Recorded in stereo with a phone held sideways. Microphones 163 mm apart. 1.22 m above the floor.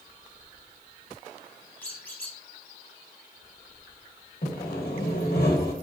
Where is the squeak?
15° left (ahead or behind), 1.2 m.